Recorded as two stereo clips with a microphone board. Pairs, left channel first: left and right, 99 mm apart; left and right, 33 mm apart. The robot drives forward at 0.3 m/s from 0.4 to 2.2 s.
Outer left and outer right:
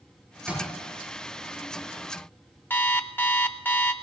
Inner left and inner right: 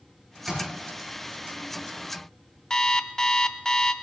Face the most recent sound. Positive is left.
turn(degrees=20)  # may be behind; listen again after turning